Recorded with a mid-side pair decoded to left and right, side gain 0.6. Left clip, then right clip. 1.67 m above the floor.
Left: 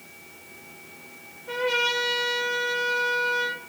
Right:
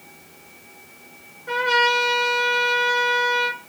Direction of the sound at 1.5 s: 65° right.